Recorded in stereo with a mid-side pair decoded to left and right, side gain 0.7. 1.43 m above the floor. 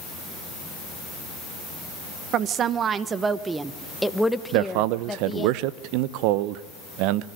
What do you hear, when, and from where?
2.3 s a woman speaking: 50° right, 1.3 m; by 5.5 s 20° left, 1.9 m
4.5 s a man speaking: 70° right, 0.9 m